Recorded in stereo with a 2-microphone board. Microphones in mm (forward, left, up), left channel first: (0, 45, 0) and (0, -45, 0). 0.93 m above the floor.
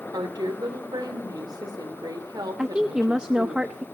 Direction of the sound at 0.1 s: 50° right (ahead or behind).